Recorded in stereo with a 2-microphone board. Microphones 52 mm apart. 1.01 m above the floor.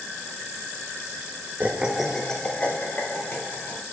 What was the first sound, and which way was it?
Laughter, 35° right (ahead or behind).